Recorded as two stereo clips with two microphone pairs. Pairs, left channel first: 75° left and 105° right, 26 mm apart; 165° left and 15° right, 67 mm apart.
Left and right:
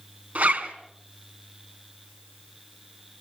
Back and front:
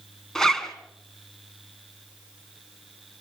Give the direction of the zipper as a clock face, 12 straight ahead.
4 o'clock.